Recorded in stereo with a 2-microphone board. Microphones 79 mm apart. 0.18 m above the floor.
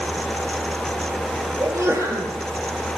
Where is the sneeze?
40° right (ahead or behind), 4.5 m.